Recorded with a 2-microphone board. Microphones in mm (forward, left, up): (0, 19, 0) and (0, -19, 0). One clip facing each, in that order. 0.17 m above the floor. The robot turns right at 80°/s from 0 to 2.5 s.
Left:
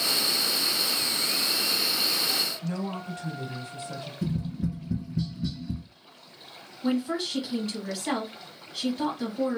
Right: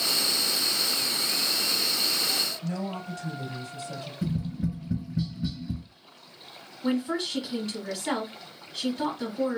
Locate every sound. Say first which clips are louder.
2.6 s a woman speaking: even; 45° left (ahead or behind), 1.4 m
4.2 s tapping: even; 10° right (ahead or behind), 1.4 m
6.8 s a woman speaking: even; centre (ahead or behind), 1.3 m